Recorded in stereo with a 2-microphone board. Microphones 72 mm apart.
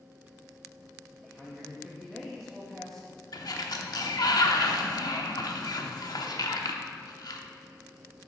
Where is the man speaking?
5° left (ahead or behind), 1.2 m.